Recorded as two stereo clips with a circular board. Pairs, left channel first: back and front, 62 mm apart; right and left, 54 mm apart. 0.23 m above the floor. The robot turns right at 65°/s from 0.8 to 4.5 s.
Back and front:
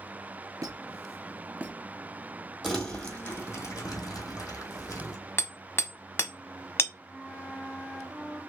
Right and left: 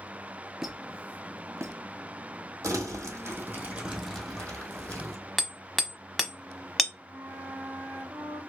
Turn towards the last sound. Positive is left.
turn(degrees=95)